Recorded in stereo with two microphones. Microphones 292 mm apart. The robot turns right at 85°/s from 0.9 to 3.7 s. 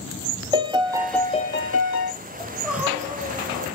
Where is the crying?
5° left (ahead or behind), 1.3 m; by 3.6 s 20° right (ahead or behind), 1.3 m.